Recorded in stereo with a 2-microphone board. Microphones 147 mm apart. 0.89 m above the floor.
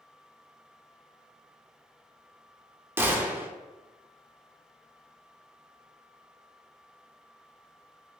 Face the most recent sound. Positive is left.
turn(degrees=-15)  # may be behind; listen again after turning